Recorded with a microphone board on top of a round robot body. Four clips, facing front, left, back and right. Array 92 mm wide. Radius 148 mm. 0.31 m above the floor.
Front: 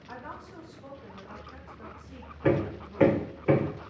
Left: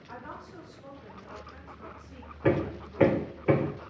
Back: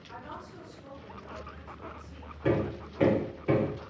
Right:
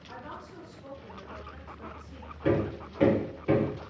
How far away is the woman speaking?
About 3 m.